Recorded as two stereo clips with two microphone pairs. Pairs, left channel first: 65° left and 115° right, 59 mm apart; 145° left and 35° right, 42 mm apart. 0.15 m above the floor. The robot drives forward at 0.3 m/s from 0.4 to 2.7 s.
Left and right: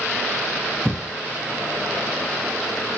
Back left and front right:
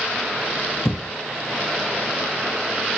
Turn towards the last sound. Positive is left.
turn(degrees=170)